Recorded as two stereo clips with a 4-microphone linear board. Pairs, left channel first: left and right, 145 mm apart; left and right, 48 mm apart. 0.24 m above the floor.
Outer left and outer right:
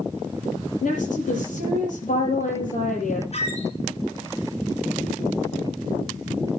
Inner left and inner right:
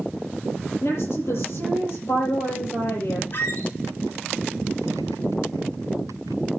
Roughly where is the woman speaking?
Left.